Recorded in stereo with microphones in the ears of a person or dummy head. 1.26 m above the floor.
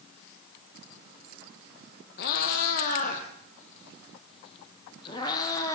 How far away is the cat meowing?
About 3 m.